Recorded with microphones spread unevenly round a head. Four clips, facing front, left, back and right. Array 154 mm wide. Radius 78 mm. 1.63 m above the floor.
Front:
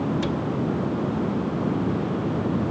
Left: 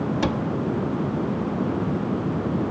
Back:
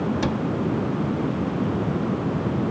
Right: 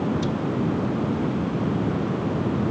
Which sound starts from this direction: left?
A cupboard door, at 0.2 s.